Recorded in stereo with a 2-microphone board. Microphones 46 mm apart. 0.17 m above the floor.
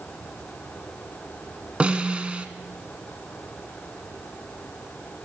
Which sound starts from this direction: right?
A snare drum, at 1.8 s.